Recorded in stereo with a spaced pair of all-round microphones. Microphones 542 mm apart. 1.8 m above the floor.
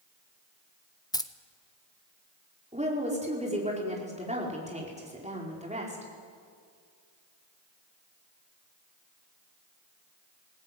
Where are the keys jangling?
5° left (ahead or behind), 0.8 m.